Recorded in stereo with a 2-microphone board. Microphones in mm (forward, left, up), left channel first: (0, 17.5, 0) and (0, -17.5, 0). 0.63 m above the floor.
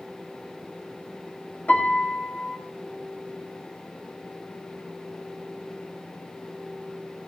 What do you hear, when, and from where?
1.7 s a piano: 40° left (ahead or behind), 1.7 m